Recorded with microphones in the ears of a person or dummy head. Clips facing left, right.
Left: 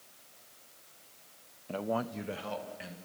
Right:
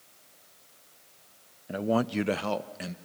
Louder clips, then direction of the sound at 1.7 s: Right 7 dB; 5° right (ahead or behind).